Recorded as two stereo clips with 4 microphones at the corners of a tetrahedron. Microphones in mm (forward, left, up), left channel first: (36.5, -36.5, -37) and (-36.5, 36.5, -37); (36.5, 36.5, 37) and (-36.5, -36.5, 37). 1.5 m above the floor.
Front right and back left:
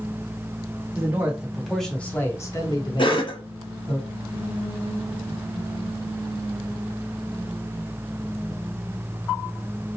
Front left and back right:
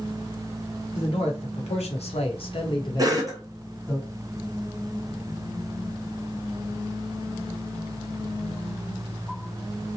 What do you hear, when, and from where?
0.9 s a man speaking: 70° left, 1.0 m; by 4.0 s 20° right, 1.3 m
3.0 s a cough: 80° right, 0.8 m